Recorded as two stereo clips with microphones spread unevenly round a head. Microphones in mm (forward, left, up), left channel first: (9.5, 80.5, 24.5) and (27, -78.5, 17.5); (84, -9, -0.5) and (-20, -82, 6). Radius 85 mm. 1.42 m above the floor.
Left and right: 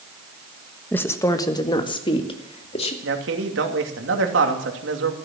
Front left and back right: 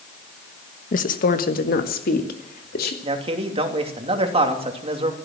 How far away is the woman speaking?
About 1.3 m.